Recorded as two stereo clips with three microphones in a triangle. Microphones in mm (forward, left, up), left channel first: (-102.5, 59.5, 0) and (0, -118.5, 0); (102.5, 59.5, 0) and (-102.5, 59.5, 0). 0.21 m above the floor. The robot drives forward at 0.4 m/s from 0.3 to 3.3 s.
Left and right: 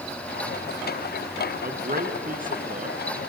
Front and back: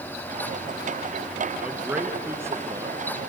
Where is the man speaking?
95° right, 2.5 m; by 3.0 s 110° right, 2.5 m.